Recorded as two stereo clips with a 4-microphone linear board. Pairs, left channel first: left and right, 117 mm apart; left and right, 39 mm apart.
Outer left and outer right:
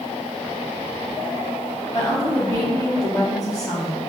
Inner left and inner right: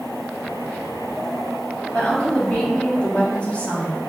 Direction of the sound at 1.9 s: 30° left (ahead or behind).